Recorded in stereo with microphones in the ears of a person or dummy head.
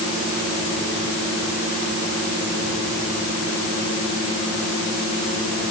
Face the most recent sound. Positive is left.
No sound to turn to.